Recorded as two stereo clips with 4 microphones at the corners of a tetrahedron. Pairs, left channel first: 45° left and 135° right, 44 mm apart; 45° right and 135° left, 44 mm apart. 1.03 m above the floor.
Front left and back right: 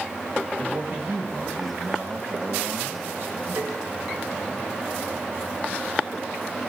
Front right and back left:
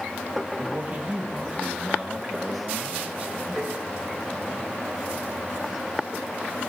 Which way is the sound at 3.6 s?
150° right.